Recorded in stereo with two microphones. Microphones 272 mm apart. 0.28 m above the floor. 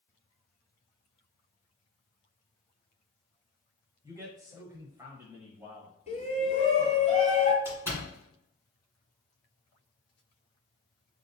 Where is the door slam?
10° right (ahead or behind), 1.8 m.